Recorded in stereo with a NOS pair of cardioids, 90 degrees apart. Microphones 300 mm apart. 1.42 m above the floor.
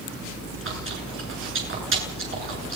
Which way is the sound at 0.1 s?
45° right.